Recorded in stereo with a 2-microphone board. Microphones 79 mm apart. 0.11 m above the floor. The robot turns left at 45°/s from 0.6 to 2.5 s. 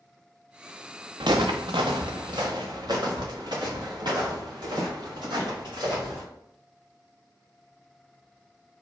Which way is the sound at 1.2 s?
75° right (ahead or behind).